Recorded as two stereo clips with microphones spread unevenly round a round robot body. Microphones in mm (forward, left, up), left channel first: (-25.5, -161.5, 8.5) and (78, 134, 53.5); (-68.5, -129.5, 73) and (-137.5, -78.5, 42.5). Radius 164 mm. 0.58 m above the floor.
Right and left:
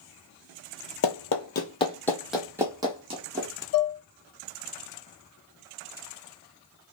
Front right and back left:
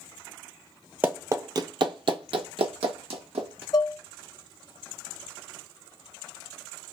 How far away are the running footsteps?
About 0.7 m.